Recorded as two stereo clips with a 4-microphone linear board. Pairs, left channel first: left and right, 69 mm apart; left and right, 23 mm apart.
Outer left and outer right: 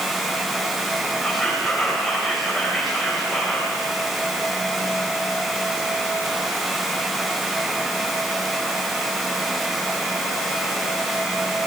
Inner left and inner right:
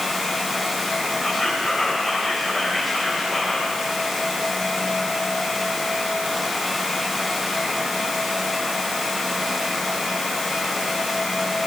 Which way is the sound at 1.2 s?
Centre (ahead or behind).